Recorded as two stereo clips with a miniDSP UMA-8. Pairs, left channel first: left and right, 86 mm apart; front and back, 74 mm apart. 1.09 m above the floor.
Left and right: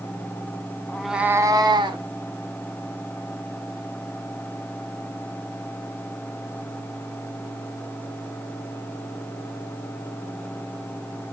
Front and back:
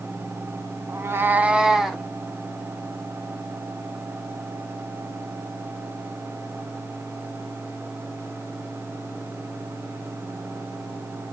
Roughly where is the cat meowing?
Behind.